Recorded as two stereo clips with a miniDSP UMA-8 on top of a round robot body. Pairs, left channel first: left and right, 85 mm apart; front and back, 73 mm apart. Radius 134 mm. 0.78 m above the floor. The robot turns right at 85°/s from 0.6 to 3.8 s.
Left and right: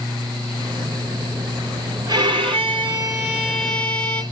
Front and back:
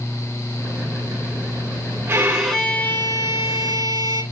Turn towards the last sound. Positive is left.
turn(degrees=20)